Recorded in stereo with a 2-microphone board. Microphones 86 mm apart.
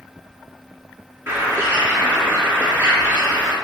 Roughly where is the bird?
Right.